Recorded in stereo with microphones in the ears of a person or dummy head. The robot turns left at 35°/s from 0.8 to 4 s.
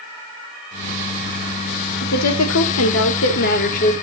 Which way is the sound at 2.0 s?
100° left.